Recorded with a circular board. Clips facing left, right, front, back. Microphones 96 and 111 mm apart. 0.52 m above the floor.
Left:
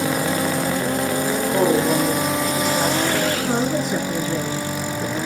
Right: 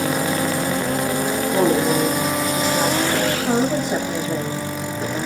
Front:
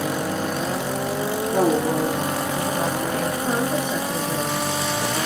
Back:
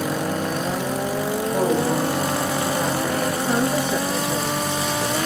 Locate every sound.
1.5 s a woman speaking: 30° right, 9 m; by 3.3 s 25° right, 9.5 m
3.4 s a woman speaking: 85° right, 2 m